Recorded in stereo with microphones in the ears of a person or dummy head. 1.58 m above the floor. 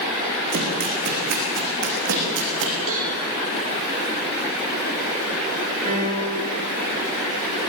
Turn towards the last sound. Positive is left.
turn(degrees=-35)  # may be behind; listen again after turning